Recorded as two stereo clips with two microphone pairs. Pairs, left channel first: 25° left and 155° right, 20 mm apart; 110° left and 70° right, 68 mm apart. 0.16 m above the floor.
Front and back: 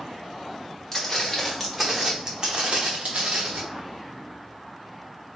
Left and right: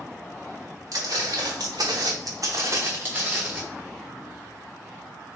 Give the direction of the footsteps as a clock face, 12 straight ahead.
1 o'clock.